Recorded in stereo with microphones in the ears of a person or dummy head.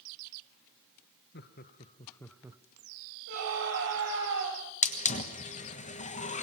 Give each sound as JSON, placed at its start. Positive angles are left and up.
{"t": 1.3, "sound": "laughter", "side_deg": 50, "distance_m": 1.3}
{"t": 3.3, "sound": "a scream", "side_deg": -65, "distance_m": 5.5}
{"t": 4.8, "sound": "a hiss", "side_deg": 35, "distance_m": 1.3}